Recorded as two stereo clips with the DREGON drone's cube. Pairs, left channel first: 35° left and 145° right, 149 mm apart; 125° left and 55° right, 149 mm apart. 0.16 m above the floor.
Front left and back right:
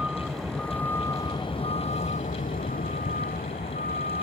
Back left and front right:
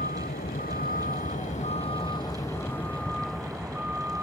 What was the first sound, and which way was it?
A vehicle, 130° left.